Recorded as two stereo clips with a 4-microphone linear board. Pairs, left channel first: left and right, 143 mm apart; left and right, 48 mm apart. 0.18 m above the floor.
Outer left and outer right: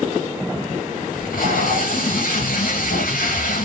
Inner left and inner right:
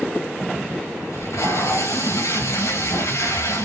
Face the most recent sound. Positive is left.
turn(degrees=75)  # may be behind; listen again after turning